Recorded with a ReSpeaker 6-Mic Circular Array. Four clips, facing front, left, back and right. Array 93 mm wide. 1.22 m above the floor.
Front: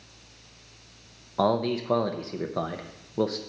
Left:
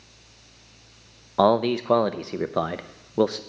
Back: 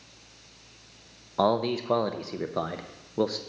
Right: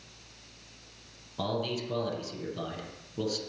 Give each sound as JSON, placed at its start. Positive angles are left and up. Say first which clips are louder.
{"t": 1.4, "sound": "a man speaking", "louder": "left 13 dB, even", "azimuth_deg": 95, "distance_m": 0.5}